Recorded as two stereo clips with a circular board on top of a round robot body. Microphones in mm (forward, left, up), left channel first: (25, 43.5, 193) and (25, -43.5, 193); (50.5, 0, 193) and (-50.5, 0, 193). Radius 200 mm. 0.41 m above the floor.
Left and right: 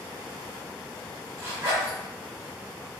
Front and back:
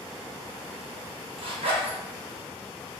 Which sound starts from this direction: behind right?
A zipper, at 1.4 s.